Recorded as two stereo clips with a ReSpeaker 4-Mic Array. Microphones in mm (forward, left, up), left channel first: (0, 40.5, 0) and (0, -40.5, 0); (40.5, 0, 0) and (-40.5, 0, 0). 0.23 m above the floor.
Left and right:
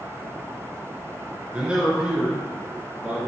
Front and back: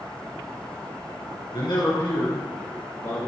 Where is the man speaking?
15° right, 3 m; by 3.3 s 25° right, 4 m.